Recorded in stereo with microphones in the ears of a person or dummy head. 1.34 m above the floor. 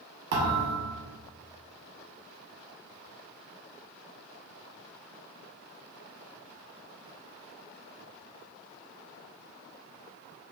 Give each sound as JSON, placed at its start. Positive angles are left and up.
{"t": 0.3, "sound": "a thud", "side_deg": -60, "distance_m": 1.1}